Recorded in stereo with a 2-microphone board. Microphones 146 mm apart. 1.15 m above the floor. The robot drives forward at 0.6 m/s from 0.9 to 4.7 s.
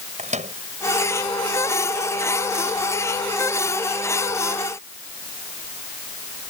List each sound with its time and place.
0.2 s a microwave: 55° right (ahead or behind)